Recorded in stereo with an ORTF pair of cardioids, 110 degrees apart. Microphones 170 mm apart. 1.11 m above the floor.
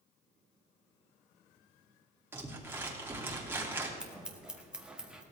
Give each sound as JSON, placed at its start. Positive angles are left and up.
{"t": 2.3, "sound": "crumpling", "azimuth_deg": -15, "distance_m": 2.5}
{"t": 4.0, "sound": "scissors", "azimuth_deg": -5, "distance_m": 1.8}